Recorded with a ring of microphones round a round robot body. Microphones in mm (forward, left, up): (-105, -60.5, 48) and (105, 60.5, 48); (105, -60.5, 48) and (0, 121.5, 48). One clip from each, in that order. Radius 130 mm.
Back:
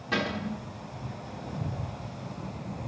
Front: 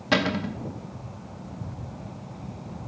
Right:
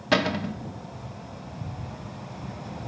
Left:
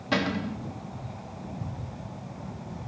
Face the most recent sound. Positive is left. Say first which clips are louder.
# front 6 dB, right 4 dB
turn(degrees=-10)